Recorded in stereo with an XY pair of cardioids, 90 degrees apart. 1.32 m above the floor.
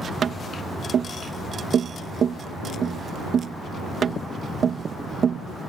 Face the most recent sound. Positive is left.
turn(degrees=-60)